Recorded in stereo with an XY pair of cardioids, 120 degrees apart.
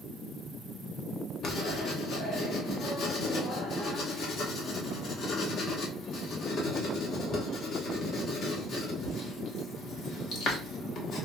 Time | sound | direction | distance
1.4 | writing | 55° left | 1.2 m